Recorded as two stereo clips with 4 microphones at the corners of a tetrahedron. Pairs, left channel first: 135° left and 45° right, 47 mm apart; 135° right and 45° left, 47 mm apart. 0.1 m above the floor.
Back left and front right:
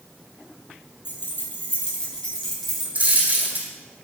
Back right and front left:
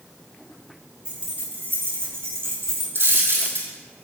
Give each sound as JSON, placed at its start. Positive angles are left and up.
{"t": 1.1, "sound": "keys jangling", "azimuth_deg": 110, "distance_m": 1.8}
{"t": 3.0, "sound": "a dropped coin", "azimuth_deg": 15, "distance_m": 2.5}